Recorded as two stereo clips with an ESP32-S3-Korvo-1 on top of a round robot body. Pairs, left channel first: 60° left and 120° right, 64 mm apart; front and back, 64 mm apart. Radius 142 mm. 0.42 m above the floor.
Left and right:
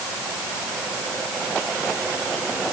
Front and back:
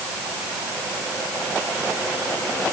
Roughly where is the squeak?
I don't hear a squeak.